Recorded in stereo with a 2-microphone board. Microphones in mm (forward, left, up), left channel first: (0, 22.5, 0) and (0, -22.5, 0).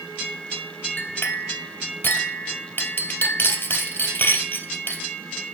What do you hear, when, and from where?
1.0 s a clink: 50° left (ahead or behind), 1.5 m